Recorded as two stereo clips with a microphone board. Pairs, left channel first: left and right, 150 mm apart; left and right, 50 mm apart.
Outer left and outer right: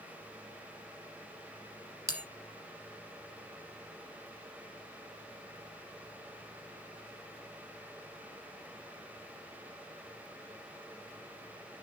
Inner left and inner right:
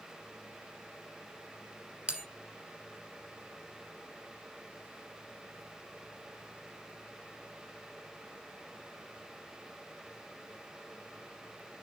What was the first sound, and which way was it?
A bell, 20° right (ahead or behind).